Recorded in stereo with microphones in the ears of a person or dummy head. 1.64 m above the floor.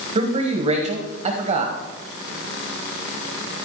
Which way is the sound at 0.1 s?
30° right (ahead or behind).